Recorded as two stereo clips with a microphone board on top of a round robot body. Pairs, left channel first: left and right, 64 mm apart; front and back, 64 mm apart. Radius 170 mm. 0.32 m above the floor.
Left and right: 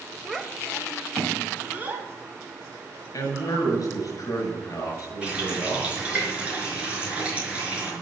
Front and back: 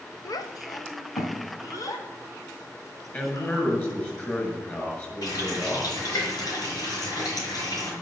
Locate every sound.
0.2 s a child speaking: 5° right, 1.4 m; by 3.7 s 40° right, 4 m
3.1 s a man speaking: 60° left, 6.5 m
5.2 s a running tap: 20° right, 5 m